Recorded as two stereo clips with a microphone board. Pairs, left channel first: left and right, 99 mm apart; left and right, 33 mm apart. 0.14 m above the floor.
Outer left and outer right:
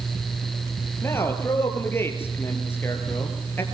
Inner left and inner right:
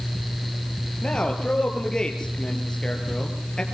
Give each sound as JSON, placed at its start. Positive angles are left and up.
{"t": 1.0, "sound": "a man speaking", "side_deg": 25, "distance_m": 4.0}